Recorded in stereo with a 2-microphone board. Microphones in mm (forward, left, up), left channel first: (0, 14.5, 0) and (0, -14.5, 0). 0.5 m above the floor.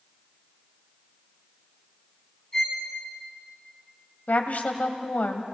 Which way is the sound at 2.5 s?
25° left (ahead or behind).